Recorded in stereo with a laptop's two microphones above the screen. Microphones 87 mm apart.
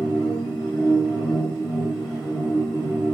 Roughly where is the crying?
I don't hear crying.